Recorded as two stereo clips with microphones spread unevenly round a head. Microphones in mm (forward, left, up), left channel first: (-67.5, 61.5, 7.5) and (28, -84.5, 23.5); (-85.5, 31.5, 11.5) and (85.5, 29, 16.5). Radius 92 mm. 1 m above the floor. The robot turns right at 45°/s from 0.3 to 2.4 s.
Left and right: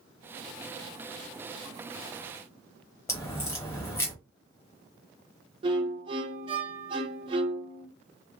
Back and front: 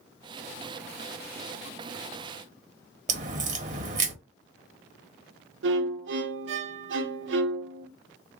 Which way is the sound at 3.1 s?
45° left.